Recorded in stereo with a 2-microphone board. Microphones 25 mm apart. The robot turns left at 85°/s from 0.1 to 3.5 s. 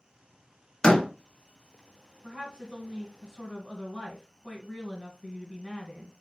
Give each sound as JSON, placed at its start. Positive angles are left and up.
{"t": 0.8, "sound": "a door slam", "side_deg": 25, "distance_m": 0.7}
{"t": 2.2, "sound": "a woman speaking", "azimuth_deg": -60, "distance_m": 1.5}